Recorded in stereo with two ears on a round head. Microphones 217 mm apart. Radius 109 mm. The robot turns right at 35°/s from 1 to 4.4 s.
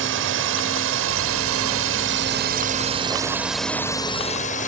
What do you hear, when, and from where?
0.0 s a drone: 55° right (ahead or behind); by 4.7 s 30° left (ahead or behind)